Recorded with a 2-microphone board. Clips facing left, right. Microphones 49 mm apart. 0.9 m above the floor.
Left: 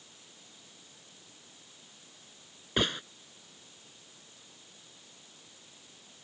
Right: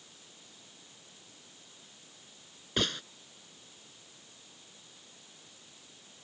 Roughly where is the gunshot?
Centre.